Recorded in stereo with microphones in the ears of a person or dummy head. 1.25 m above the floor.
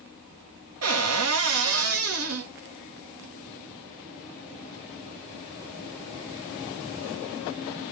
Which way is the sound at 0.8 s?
75° right (ahead or behind).